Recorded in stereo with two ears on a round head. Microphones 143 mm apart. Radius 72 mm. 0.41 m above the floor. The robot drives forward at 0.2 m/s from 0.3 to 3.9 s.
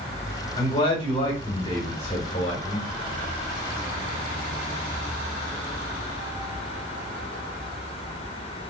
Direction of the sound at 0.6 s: 30° left (ahead or behind).